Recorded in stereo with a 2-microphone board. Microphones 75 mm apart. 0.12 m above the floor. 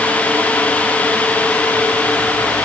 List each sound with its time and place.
Only background noise.